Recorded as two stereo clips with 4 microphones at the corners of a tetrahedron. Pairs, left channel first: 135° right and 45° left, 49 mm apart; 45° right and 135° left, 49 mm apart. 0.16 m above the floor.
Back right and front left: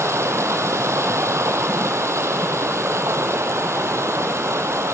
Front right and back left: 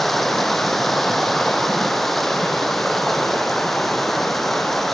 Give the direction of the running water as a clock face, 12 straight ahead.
11 o'clock.